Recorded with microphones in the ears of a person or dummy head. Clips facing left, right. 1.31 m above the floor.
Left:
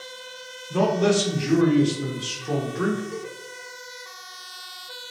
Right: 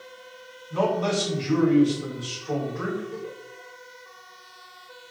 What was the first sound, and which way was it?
A man speaking, 80° left.